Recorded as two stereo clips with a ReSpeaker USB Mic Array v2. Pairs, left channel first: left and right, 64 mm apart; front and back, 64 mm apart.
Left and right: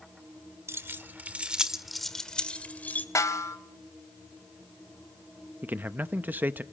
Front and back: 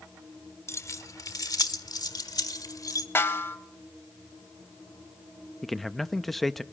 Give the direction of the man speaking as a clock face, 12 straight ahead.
3 o'clock.